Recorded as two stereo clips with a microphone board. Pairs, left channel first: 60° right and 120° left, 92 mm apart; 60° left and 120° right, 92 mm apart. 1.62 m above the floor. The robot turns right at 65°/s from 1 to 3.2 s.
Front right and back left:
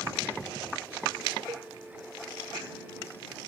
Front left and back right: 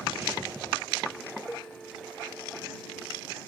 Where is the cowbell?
125° left; by 1.7 s 140° left.